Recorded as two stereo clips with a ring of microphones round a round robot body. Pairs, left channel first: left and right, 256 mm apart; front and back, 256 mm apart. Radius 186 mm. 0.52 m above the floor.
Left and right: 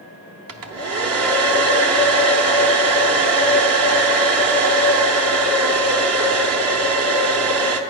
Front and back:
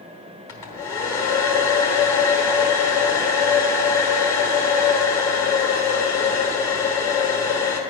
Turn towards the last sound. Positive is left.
turn(degrees=-80)